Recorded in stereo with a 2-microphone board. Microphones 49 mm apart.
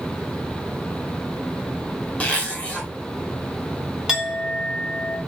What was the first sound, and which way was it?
A zipper, 25° left (ahead or behind).